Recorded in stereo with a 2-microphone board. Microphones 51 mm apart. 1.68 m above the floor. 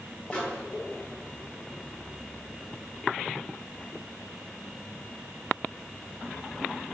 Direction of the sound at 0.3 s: 30° left (ahead or behind).